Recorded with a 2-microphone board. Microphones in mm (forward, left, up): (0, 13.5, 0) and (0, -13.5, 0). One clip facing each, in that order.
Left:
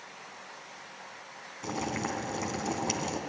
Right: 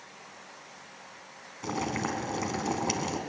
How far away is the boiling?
About 2 m.